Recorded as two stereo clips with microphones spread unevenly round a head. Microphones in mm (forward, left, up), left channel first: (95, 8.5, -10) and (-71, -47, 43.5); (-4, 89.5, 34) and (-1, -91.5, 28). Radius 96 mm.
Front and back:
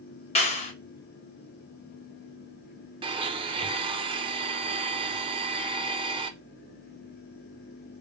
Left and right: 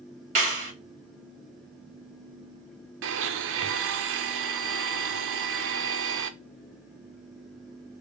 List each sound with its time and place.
0.3 s a clap: 35° right, 1.7 m
3.0 s a blender: 95° right, 0.6 m